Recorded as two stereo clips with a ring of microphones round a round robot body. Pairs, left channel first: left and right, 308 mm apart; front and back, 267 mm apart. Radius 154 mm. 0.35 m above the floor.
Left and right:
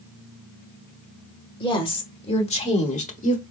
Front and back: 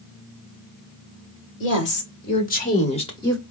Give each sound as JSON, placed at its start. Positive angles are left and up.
{"t": 1.6, "sound": "a woman speaking", "azimuth_deg": 20, "distance_m": 1.9}